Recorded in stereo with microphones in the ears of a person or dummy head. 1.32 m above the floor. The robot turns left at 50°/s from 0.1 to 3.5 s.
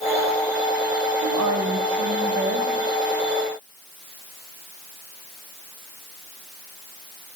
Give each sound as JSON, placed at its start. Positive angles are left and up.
{"t": 1.2, "sound": "a woman speaking", "azimuth_deg": -70, "distance_m": 1.3}